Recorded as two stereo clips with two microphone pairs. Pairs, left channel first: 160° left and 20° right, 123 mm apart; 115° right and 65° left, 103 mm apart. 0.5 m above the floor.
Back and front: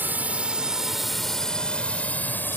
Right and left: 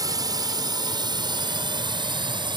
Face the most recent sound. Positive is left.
turn(degrees=90)